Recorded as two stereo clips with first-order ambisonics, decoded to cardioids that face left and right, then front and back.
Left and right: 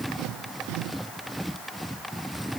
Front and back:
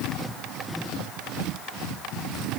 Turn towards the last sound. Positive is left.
No sound to turn to.